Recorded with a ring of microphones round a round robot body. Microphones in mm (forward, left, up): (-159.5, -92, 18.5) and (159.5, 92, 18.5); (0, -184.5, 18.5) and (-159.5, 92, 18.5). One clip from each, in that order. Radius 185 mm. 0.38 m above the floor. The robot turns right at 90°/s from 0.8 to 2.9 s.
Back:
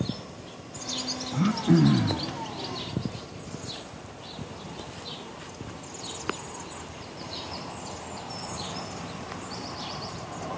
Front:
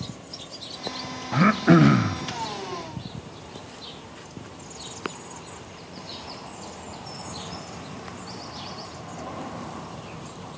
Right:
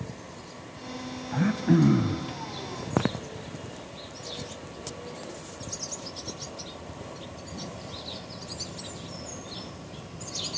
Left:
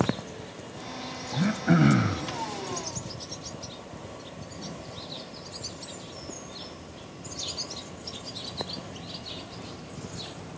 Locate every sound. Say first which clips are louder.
1.3 s throat clearing: front 7 dB, even; 20° left, 0.6 m; by 2.2 s 100° left, 0.6 m